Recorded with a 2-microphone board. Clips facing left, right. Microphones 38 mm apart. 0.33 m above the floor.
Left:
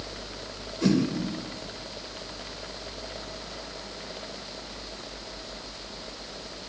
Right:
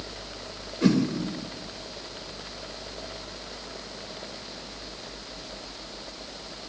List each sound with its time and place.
0.8 s a whoosh: 20° right (ahead or behind), 1.0 m